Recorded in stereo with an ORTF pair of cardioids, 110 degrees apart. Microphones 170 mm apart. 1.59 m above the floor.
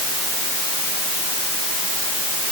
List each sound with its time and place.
Only background noise.